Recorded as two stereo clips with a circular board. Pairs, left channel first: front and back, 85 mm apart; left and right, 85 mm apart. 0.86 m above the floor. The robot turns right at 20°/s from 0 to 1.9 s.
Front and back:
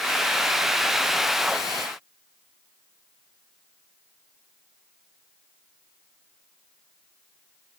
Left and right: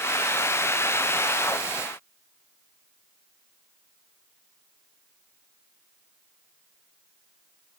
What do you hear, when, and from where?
Only background noise.